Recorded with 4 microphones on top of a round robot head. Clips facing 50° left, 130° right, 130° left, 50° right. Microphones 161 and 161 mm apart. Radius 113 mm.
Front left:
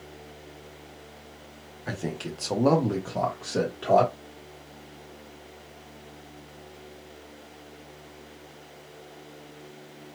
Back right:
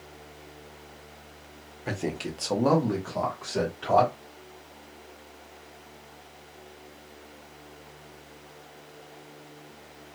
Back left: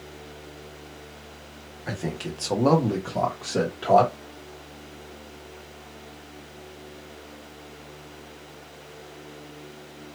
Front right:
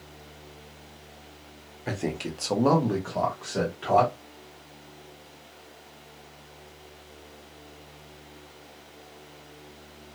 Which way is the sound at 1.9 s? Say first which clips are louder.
Back right 2 dB, front right 1 dB; 85° right.